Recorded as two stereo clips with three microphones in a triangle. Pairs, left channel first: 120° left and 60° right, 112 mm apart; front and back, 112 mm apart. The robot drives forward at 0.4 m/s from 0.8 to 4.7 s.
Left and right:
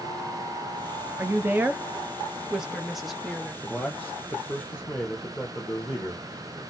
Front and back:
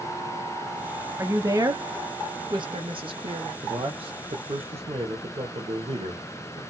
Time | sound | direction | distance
1.2 | a woman speaking | 120° right | 1.0 m
3.6 | a man speaking | 165° right | 1.0 m